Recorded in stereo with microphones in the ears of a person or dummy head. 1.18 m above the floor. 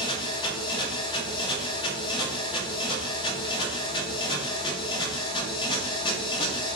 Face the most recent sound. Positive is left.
turn(degrees=30)  # may be behind; listen again after turning